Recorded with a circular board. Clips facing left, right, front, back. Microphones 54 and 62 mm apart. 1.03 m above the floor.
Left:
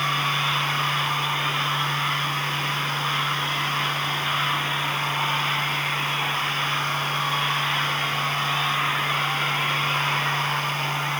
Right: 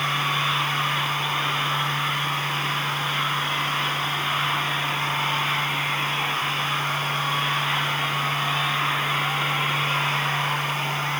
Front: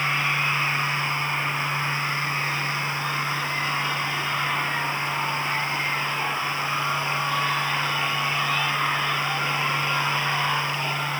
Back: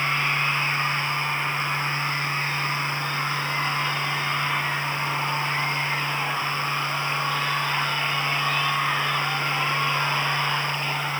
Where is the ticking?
No ticking in this recording.